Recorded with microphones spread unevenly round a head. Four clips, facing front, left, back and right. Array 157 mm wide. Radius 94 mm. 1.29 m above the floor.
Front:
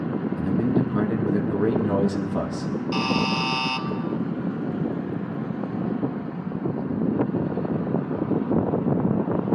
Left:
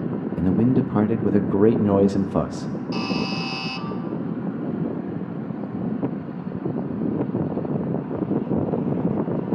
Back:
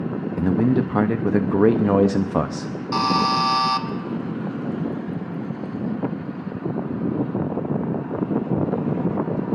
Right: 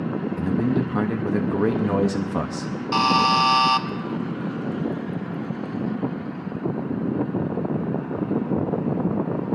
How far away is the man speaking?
About 0.6 m.